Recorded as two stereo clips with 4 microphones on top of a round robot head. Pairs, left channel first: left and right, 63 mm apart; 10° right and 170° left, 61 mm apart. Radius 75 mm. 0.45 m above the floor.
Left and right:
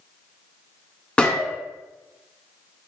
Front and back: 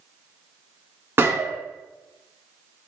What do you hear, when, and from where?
1.2 s a gunshot: 155° left, 1.6 m